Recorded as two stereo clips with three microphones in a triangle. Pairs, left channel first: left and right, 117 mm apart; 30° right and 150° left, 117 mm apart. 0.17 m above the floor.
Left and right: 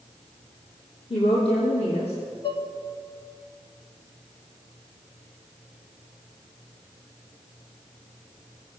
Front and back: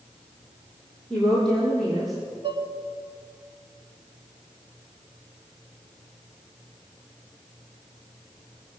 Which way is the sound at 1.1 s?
50° left.